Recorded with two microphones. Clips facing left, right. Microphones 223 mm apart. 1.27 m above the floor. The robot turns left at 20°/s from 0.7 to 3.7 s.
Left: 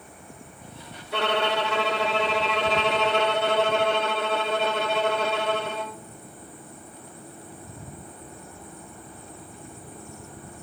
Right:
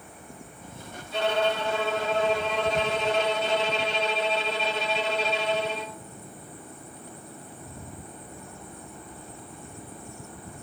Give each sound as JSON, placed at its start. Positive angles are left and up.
{"t": 1.1, "sound": "a violin", "azimuth_deg": 110, "distance_m": 0.8}